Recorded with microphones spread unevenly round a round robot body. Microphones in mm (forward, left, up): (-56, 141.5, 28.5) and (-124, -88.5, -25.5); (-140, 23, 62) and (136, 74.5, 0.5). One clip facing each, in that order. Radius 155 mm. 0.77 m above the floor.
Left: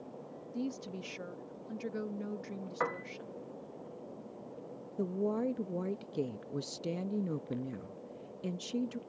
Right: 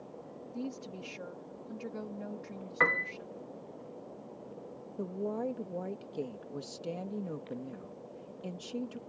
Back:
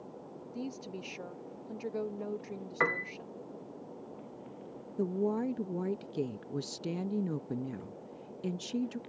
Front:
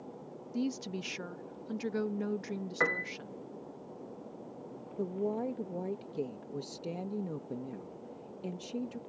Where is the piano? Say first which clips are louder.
Right 3 dB, back 2 dB; 80° right.